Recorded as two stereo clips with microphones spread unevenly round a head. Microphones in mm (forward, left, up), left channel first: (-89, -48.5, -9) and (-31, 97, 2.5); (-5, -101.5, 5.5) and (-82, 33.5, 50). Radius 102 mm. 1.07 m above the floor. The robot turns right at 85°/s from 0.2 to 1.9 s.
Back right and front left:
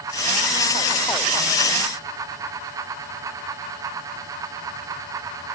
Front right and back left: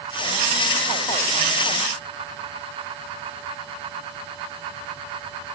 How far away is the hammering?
I don't hear hammering.